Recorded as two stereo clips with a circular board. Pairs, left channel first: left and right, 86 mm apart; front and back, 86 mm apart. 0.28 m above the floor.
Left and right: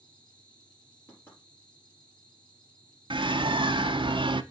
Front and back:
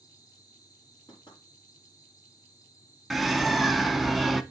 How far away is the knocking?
About 5 m.